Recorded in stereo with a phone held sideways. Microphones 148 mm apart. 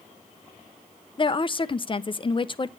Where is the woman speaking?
35° left (ahead or behind), 0.7 m.